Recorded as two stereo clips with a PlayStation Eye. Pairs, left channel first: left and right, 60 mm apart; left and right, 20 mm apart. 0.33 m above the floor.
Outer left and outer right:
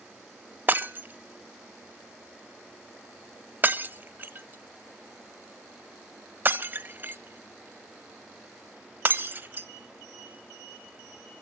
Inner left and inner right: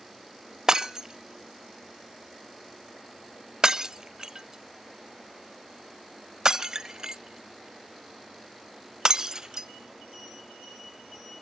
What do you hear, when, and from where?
0.7 s breaking glass: 35° right (ahead or behind), 0.7 m